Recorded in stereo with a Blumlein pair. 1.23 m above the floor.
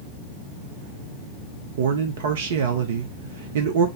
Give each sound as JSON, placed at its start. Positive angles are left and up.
{"t": 1.8, "sound": "a man speaking", "azimuth_deg": -55, "distance_m": 0.8}